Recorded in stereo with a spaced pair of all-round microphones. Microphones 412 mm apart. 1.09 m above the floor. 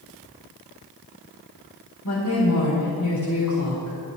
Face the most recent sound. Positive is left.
turn(degrees=50)  # may be behind; listen again after turning